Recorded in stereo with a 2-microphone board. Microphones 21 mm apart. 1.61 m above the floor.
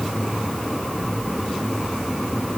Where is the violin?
No violin in this recording.